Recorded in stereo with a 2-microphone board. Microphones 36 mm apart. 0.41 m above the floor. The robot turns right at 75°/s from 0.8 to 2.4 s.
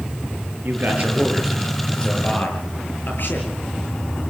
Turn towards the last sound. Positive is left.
turn(degrees=55)